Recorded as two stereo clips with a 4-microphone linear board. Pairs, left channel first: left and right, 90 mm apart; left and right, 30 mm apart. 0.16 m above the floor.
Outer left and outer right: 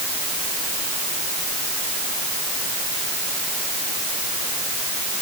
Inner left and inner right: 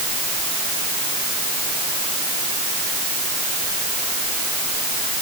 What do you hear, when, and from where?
Only background noise.